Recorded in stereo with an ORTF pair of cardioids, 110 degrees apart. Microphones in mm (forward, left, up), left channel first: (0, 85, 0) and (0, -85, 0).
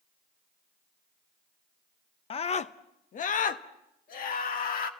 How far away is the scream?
About 0.6 m.